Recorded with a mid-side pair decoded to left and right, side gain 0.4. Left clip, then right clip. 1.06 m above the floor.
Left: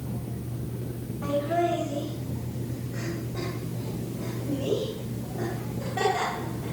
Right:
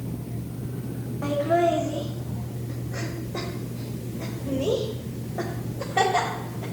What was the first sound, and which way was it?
Laughter, 60° right.